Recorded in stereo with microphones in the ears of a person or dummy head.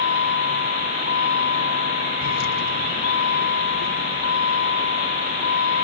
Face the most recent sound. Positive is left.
turn(degrees=55)  # may be behind; listen again after turning